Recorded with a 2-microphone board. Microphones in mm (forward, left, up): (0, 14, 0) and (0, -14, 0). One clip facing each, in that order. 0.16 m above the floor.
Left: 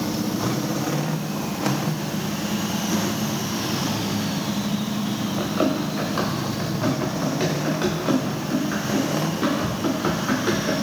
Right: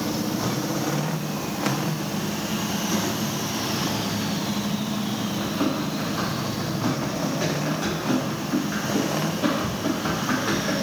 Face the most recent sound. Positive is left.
turn(degrees=80)